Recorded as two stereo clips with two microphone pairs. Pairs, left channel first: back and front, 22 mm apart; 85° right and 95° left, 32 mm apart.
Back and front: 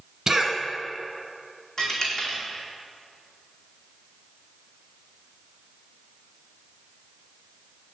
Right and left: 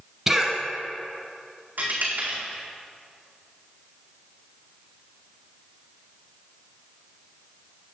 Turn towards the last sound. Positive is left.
turn(degrees=115)